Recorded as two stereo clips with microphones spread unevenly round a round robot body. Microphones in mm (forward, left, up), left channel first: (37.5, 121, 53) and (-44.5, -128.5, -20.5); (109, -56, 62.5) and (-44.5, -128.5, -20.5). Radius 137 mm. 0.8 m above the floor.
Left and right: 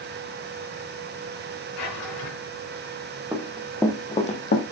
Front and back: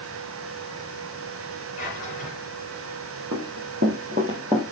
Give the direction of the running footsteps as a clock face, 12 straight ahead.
7 o'clock.